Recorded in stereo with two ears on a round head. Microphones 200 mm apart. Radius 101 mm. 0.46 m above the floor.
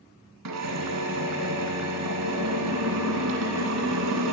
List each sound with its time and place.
0.5 s a drill: 85° right, 1.9 m